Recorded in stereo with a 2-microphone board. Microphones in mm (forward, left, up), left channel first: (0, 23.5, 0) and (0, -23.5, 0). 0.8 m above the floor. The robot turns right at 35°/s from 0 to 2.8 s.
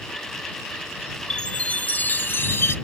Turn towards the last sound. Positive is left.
turn(degrees=70)